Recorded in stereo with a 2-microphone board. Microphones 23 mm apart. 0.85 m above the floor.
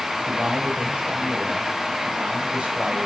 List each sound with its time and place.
0.3 s a man speaking: 80° right, 4 m